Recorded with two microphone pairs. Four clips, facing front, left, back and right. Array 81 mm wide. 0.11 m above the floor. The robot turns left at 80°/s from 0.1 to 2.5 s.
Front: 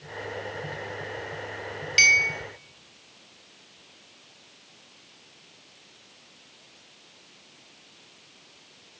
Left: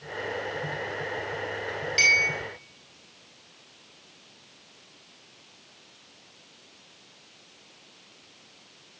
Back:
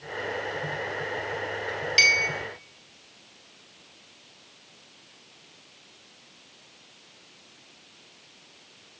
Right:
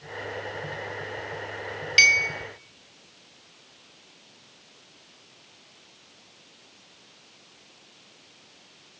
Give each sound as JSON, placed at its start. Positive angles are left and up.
{"t": 2.0, "sound": "a clink", "azimuth_deg": -85, "distance_m": 1.0}